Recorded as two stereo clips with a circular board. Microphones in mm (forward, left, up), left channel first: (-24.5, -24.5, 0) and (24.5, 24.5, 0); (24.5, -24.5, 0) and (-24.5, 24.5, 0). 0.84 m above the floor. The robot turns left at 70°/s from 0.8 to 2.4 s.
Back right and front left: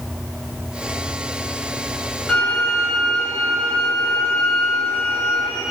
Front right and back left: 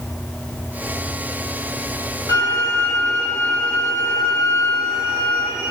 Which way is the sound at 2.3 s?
50° right.